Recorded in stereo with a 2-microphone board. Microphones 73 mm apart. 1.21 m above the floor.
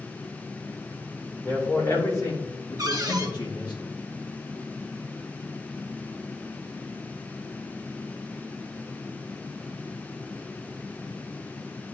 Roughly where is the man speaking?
Left.